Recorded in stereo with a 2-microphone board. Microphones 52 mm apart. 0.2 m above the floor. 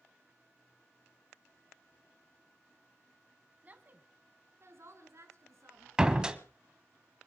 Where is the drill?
I don't hear a drill.